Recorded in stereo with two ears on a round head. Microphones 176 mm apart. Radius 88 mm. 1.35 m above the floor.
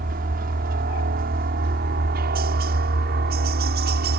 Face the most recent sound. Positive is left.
turn(degrees=-55)  # may be behind; listen again after turning